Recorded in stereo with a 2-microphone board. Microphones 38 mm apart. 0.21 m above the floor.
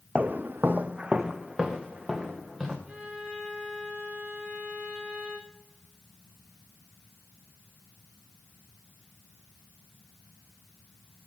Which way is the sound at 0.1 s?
45° right (ahead or behind).